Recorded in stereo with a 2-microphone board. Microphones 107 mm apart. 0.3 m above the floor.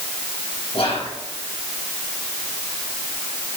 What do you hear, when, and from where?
0.7 s whispering: 60° left (ahead or behind), 3 m